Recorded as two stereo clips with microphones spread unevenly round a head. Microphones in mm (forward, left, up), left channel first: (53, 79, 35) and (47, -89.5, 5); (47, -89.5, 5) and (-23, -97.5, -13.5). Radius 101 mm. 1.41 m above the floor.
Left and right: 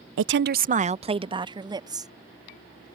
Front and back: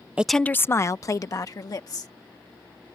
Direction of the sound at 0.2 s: 95° right.